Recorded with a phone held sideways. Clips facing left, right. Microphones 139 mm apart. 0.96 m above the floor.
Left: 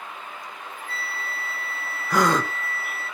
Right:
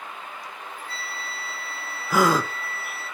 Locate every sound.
0.4 s a flute: 50° left (ahead or behind), 1.7 m
2.1 s a gasp: 5° right (ahead or behind), 0.7 m